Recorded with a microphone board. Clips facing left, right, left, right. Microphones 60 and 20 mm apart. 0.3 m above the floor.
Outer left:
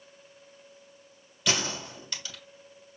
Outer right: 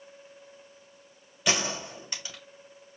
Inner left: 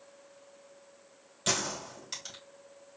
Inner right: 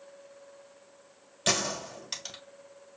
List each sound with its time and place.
1.5 s a gunshot: 20° right (ahead or behind), 2.0 m